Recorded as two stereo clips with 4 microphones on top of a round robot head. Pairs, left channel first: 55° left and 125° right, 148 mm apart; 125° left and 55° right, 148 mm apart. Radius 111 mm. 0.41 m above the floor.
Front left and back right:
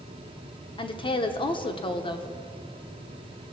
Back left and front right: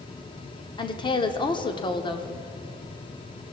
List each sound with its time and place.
0.8 s a woman speaking: 90° left, 0.9 m